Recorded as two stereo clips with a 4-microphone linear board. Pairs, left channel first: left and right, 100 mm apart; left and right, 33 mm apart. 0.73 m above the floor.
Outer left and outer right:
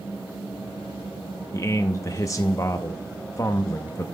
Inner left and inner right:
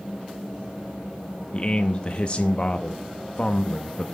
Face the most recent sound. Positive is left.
turn(degrees=35)  # may be behind; listen again after turning